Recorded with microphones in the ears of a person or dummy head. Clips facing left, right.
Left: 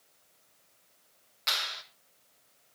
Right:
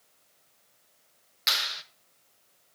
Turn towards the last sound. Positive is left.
turn(degrees=-30)  # may be behind; listen again after turning